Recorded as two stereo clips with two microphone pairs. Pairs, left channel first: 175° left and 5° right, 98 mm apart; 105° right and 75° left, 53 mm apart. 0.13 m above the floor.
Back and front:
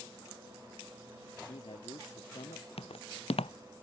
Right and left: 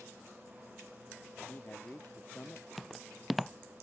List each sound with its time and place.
1.5 s a man speaking: 160° right; by 2.7 s 165° right
2.8 s footsteps: 165° left